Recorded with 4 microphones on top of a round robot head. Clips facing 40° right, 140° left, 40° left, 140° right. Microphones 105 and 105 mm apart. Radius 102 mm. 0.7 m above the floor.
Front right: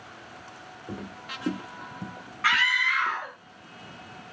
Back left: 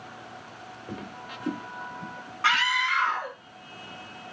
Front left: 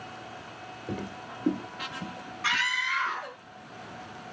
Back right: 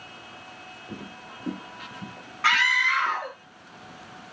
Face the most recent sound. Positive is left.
turn(degrees=-160)